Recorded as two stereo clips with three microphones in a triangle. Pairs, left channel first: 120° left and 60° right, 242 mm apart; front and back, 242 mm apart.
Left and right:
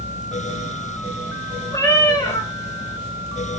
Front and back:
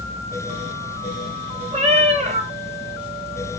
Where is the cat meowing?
175° left, 0.7 m.